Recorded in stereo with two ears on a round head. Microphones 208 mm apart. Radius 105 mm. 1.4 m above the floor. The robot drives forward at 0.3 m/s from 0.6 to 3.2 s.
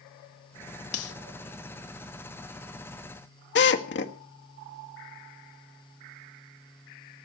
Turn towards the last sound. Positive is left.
turn(degrees=50)  # may be behind; listen again after turning